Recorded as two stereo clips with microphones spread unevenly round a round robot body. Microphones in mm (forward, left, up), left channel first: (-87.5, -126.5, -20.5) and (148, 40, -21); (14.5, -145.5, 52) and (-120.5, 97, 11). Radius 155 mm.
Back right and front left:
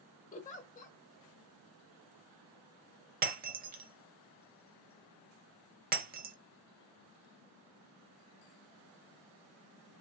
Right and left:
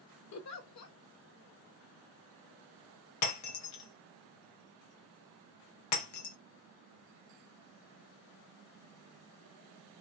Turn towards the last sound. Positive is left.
turn(degrees=-25)